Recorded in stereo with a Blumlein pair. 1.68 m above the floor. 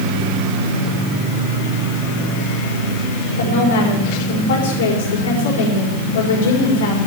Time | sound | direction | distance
3.4 | a woman speaking | 60° left | 4.5 m